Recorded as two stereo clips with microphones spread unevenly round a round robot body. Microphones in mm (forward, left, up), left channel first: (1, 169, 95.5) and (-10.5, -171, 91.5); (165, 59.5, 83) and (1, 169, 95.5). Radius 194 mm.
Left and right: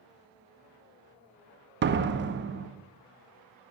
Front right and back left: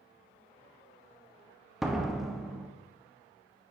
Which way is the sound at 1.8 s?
120° right.